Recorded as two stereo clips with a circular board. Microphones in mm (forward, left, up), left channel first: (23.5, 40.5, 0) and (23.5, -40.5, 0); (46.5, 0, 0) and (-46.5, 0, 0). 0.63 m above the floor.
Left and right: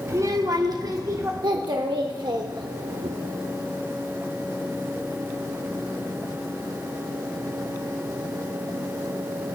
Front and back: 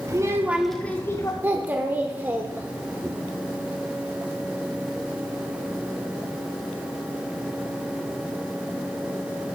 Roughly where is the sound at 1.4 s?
Right.